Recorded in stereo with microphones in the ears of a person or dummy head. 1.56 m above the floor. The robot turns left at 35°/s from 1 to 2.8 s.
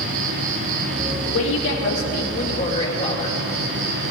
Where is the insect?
55° right, 0.8 m; by 4.1 s 120° right, 0.8 m.